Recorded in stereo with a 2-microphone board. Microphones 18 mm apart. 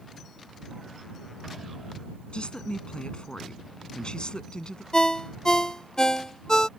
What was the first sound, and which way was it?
A woman speaking, 60° left (ahead or behind).